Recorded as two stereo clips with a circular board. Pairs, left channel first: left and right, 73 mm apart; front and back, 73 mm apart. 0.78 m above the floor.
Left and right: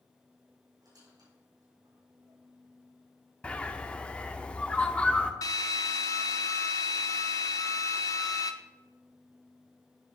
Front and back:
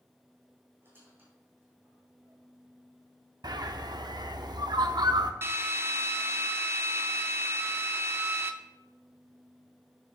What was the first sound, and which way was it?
A squeak, 120° right.